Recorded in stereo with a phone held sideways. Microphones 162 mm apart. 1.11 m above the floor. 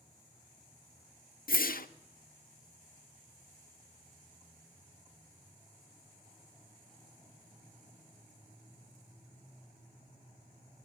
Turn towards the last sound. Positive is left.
turn(degrees=75)  # may be behind; listen again after turning